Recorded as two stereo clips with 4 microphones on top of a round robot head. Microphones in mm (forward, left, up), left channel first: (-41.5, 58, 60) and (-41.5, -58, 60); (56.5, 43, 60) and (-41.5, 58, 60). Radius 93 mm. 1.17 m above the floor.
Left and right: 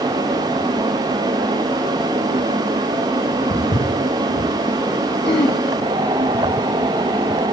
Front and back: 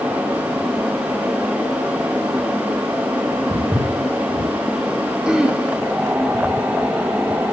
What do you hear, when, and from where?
3.5 s footsteps: 85° left, 6 m
5.2 s throat clearing: 95° left, 0.9 m